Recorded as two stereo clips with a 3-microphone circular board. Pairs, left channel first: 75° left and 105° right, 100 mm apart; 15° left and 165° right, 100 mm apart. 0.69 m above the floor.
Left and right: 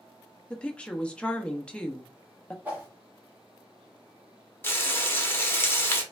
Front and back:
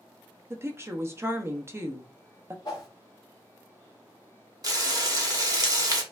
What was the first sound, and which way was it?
A woman speaking, 150° left.